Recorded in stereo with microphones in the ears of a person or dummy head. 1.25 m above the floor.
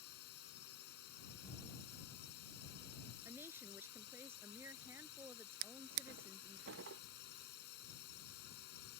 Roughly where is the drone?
Left.